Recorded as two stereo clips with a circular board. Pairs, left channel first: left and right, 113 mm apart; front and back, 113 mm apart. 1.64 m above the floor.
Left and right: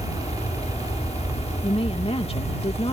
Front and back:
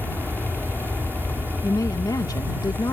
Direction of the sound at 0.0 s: 110° left.